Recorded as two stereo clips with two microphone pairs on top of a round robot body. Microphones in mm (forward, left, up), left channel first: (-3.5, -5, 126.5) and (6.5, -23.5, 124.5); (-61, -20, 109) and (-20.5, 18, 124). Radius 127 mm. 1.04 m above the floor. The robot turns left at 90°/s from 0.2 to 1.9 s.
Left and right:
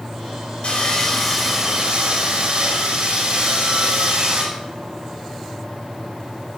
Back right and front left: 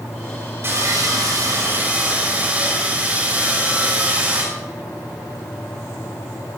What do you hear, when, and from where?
0.6 s sawing: 90° left, 6.5 m; by 4.4 s 20° right, 6.5 m